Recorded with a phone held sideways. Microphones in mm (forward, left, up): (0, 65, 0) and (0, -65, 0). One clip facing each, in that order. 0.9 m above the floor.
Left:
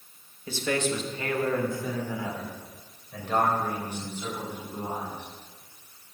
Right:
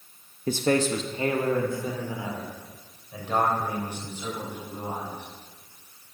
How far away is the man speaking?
About 0.8 m.